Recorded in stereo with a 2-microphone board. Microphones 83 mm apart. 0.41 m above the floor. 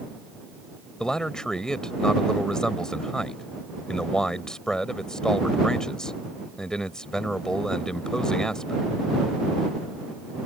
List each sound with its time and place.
1.0 s a man speaking: 10° left (ahead or behind)